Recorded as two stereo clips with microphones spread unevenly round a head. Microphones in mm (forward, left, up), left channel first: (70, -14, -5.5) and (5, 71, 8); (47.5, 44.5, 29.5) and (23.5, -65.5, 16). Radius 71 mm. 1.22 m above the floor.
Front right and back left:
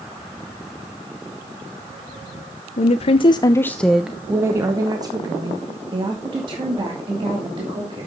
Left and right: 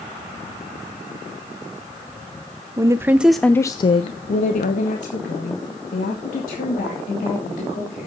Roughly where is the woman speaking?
Ahead right.